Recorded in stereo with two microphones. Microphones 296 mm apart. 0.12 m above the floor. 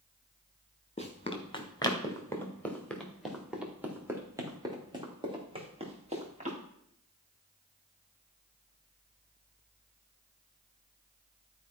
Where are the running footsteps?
25° left (ahead or behind), 2.5 m; by 6.6 s 25° right (ahead or behind), 4 m.